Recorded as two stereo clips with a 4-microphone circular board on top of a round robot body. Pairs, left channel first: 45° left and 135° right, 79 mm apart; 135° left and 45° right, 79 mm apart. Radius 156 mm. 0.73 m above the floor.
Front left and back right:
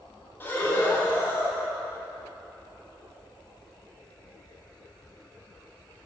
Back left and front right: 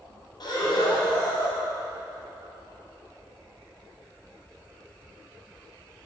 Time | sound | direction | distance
0.4 | breathing | 105° left | 1.7 m